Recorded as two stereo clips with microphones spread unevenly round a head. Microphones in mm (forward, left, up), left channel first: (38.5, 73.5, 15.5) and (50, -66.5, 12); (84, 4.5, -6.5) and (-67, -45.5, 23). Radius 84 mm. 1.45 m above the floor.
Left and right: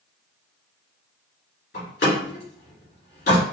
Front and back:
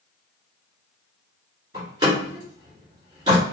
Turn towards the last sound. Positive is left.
turn(degrees=130)